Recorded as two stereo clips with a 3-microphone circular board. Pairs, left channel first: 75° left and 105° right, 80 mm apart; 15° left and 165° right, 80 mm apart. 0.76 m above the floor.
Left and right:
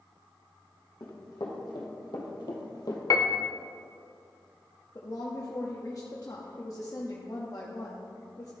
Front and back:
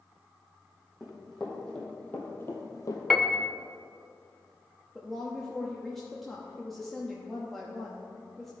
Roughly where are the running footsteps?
Left.